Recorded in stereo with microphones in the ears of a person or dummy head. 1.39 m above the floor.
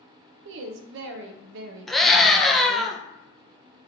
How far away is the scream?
About 0.8 m.